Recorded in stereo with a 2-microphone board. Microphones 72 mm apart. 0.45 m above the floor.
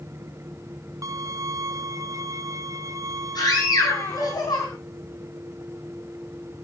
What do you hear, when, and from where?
1.0 s a violin: 50° right (ahead or behind), 0.9 m
3.4 s a scream: 70° left (ahead or behind), 5 m